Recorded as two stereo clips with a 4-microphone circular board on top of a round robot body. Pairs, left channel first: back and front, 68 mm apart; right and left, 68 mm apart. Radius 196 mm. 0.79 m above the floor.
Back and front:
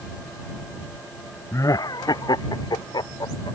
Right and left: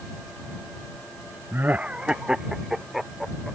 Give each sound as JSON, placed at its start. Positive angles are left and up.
{"t": 1.5, "sound": "laughter", "azimuth_deg": 140}